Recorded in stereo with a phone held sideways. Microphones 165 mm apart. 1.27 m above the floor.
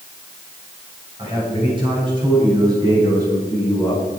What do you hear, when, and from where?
1.2 s a man speaking: 30° right (ahead or behind), 8 m; by 4.0 s 20° right (ahead or behind), 10.5 m